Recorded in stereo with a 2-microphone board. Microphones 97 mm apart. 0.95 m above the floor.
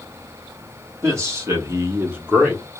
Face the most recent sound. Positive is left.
turn(degrees=0)  # may be behind; listen again after turning